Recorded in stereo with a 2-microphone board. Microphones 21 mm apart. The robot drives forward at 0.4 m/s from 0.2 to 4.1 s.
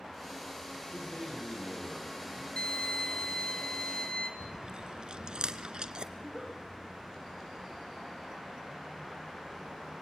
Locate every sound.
0.9 s a man speaking: 40° left (ahead or behind), 8 m
2.6 s a violin: 50° left (ahead or behind), 1.8 m; by 4.3 s 45° left (ahead or behind), 2 m
4.4 s chewing: 50° right (ahead or behind), 1.1 m
6.2 s a giggle: 5° left (ahead or behind), 7.5 m